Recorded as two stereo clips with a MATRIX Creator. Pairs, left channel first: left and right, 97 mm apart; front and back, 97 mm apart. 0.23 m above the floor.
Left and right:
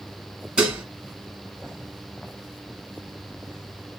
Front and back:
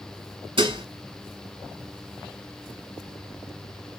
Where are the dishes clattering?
165° right, 1.5 m.